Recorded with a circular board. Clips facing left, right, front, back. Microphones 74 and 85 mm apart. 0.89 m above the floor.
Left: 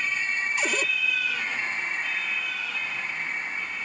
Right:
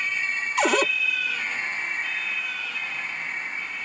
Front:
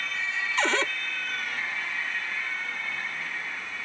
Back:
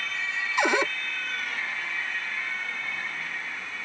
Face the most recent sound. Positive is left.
turn(degrees=-105)